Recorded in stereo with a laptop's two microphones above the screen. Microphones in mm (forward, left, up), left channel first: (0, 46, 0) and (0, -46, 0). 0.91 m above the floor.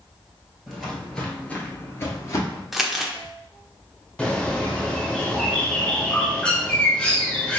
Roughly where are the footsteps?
Centre.